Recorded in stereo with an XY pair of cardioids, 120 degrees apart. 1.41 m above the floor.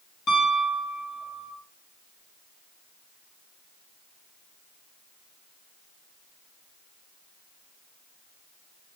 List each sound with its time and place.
0.3 s a piano: 55° left, 2.5 m